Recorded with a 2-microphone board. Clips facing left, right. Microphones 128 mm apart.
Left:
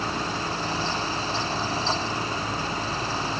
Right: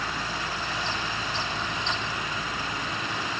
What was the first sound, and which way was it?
Only background noise.